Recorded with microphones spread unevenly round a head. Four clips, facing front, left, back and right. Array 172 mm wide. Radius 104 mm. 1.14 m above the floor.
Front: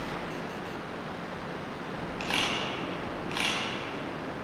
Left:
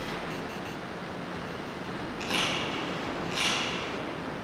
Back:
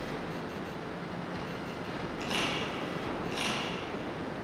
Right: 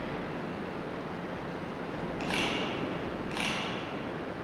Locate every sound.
2.2 s a camera shutter: 5° right, 4.5 m